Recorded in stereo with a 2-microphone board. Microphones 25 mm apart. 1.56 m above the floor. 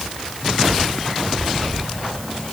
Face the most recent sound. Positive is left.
No sound to turn to.